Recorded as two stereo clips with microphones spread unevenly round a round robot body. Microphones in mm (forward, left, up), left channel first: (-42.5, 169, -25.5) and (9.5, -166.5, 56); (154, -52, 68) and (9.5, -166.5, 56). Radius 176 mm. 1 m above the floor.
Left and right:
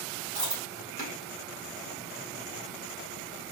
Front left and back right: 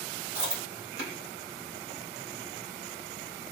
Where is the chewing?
155° right, 1.7 m.